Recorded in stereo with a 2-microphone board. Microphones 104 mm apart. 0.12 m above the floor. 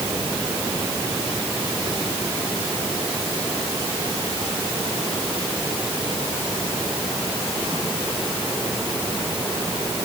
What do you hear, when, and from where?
Only background noise.